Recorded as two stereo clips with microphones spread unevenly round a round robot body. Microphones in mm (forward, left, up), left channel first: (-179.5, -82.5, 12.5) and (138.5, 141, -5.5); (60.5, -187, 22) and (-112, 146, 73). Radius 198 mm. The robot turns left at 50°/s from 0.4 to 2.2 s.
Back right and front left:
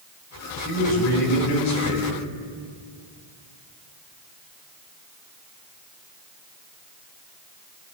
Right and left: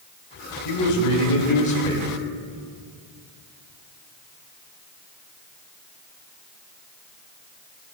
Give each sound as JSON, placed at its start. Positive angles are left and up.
{"t": 0.7, "sound": "a man speaking", "azimuth_deg": -75, "distance_m": 2.5}